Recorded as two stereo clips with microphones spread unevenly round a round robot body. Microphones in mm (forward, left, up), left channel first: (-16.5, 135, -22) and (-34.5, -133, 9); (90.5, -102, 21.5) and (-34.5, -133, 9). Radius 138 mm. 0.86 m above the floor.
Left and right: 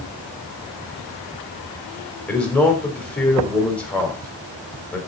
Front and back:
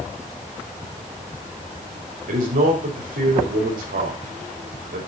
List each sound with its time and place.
2.3 s a man speaking: 170° left, 3.5 m